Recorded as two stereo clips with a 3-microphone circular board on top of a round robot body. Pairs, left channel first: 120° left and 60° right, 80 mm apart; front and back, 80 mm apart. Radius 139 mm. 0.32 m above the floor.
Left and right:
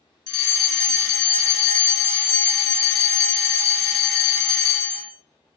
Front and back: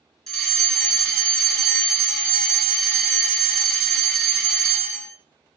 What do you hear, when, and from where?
0.3 s a fire alarm: 70° left, 1.9 m